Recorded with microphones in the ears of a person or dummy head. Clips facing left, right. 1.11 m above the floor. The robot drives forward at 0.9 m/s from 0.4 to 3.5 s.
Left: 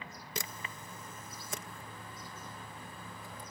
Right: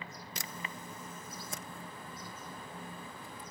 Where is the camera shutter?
60° left (ahead or behind); by 3.5 s 25° left (ahead or behind).